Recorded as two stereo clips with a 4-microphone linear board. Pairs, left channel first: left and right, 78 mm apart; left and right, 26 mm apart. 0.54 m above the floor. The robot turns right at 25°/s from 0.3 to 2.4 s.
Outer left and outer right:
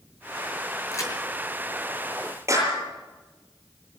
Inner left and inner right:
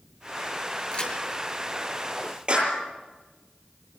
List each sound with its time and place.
0.9 s a crack: 35° left (ahead or behind), 6.5 m; by 1.1 s 40° left (ahead or behind), 6.5 m
2.5 s a clap: 35° right (ahead or behind), 9 m